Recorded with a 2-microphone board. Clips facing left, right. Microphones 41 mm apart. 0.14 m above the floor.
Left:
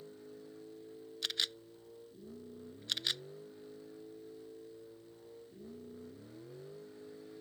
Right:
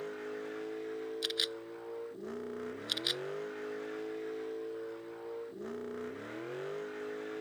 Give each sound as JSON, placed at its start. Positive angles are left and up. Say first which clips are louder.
{"t": 0.0, "sound": "a vehicle", "louder": "right 11 dB", "side_deg": -80}
{"t": 1.2, "sound": "a camera shutter", "louder": "left 2 dB", "side_deg": -5}